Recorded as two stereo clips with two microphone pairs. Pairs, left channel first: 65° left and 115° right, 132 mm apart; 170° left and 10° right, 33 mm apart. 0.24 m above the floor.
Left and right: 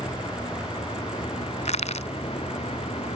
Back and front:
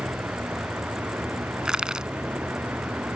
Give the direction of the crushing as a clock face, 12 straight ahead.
10 o'clock.